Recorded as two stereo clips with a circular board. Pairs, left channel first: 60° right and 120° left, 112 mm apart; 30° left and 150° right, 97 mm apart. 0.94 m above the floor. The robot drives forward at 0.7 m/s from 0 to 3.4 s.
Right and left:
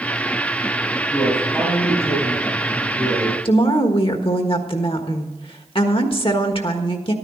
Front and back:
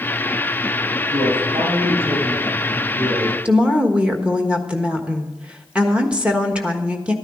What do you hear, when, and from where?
1.1 s a man speaking: 135° right, 6.5 m; by 3.4 s 140° right, 7.5 m
3.5 s a woman speaking: 75° right, 1.4 m